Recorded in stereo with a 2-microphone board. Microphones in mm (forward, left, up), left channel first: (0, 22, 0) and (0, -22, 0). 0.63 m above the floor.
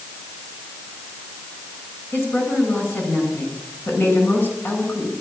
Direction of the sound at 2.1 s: 55° left (ahead or behind).